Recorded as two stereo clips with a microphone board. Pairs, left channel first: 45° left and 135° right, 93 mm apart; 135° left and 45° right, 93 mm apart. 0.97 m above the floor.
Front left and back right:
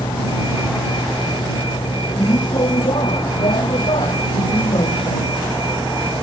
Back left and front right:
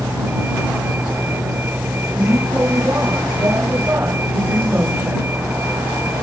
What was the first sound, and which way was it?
A vehicle, 25° left.